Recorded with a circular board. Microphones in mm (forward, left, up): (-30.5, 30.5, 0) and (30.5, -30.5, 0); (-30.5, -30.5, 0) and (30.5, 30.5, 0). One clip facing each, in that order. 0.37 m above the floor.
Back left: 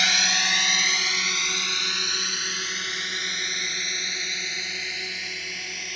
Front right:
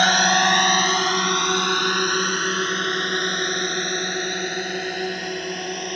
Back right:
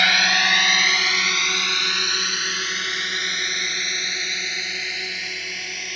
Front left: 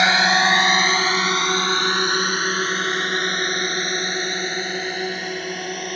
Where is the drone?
15° right; by 6.0 s 5° right.